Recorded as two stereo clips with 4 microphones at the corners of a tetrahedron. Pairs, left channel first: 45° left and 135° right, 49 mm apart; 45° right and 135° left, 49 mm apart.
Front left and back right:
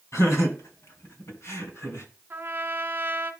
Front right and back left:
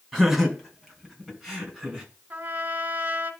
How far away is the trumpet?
About 1.4 m.